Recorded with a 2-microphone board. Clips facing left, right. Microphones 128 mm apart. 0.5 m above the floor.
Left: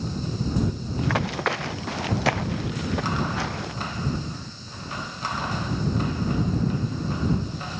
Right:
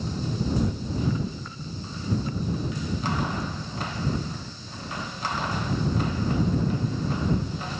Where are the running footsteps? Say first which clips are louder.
Left 6 dB; 80° left.